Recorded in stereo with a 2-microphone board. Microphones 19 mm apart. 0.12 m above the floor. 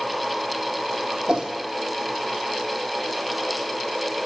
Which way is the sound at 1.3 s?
55° right (ahead or behind).